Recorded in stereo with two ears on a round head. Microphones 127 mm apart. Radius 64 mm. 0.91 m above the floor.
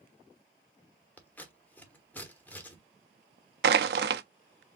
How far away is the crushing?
About 0.6 m.